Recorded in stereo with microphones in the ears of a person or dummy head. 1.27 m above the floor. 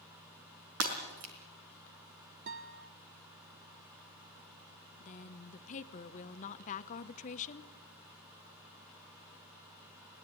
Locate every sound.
0.8 s breaking glass: 75° right (ahead or behind), 4 m
2.5 s a guitar: 50° right (ahead or behind), 1.1 m
5.0 s a woman speaking: 40° left (ahead or behind), 1.1 m